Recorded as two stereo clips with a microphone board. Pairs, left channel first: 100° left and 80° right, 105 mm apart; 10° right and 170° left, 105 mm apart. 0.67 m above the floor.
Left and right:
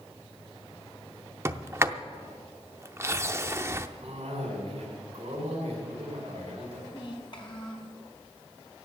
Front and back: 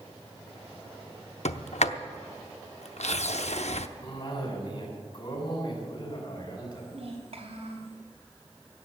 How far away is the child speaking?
About 4 m.